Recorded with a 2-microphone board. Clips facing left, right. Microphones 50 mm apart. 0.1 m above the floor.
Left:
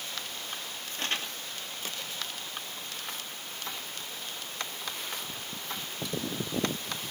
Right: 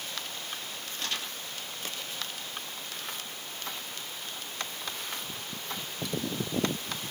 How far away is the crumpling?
About 3 m.